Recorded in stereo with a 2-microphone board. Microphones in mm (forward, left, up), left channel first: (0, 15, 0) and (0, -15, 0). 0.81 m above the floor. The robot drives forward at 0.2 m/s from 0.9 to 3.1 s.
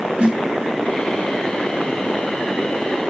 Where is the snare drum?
40° right (ahead or behind), 1.1 m.